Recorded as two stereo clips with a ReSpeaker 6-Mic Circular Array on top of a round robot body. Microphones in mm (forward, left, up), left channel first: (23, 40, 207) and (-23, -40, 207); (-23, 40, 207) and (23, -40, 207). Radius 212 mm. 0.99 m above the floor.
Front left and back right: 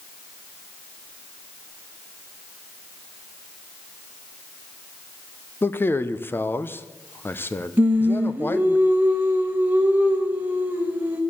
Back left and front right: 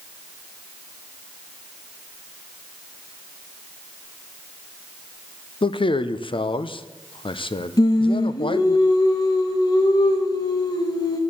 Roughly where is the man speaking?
Behind left.